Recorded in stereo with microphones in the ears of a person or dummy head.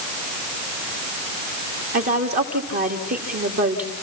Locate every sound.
1.9 s a woman speaking: 45° right (ahead or behind), 2.5 m